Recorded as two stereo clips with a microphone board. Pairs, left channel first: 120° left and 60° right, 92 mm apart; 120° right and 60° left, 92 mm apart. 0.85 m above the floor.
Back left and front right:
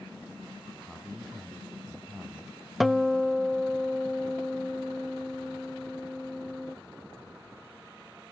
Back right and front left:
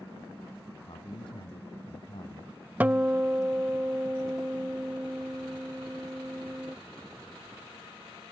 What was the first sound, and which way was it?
A man speaking, 150° right.